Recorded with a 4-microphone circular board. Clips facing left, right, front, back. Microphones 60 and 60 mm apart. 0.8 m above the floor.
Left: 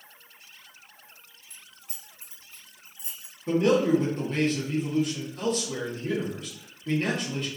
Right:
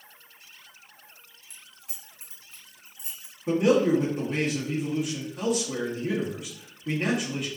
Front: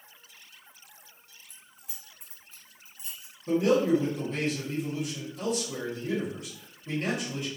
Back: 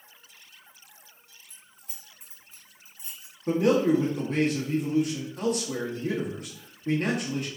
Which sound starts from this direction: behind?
A man speaking, at 3.5 s.